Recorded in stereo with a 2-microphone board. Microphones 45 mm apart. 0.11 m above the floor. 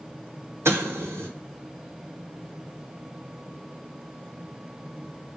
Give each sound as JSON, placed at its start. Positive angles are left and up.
{"t": 0.7, "sound": "an explosion", "side_deg": -80, "distance_m": 0.8}